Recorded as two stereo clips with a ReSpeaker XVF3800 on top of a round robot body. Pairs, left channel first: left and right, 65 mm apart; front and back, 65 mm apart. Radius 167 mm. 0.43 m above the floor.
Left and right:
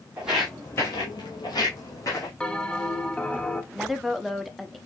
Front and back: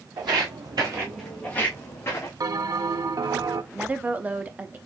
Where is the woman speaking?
175° right, 0.9 m.